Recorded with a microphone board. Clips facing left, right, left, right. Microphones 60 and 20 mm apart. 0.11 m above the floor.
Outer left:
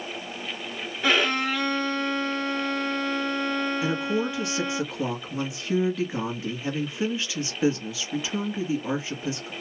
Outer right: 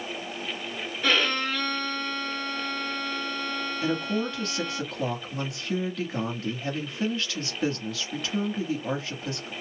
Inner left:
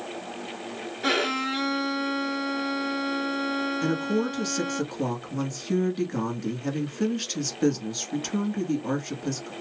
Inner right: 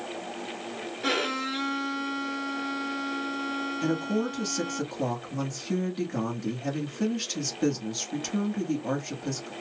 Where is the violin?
10° left (ahead or behind), 0.8 m.